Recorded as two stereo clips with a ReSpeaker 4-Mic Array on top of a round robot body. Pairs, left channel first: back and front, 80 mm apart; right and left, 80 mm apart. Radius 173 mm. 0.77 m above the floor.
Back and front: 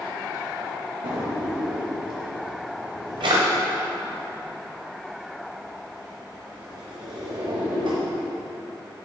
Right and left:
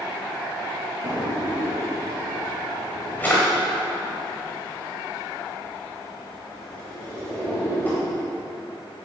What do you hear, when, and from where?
1.0 s a drawer: 20° right, 1.0 m